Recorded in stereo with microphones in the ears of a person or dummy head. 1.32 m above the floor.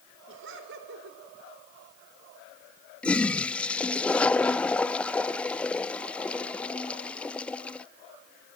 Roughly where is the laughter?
Right.